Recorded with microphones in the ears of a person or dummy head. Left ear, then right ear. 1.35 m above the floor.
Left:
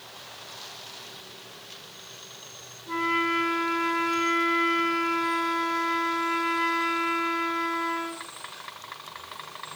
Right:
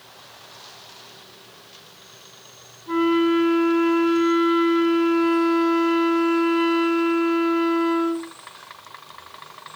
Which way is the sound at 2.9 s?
45° right (ahead or behind).